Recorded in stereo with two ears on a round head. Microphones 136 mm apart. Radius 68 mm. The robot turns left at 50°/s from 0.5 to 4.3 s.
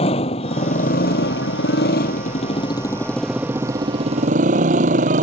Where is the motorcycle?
140° left; by 5.2 s 50° right.